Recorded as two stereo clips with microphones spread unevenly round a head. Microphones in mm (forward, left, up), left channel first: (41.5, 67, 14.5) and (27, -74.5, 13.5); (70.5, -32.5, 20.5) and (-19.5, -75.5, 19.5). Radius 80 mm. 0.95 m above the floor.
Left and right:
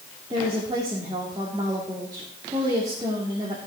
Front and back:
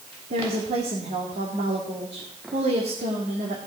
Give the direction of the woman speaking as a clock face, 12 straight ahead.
5 o'clock.